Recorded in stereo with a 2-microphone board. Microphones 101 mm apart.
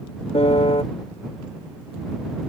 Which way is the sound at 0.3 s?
80° left.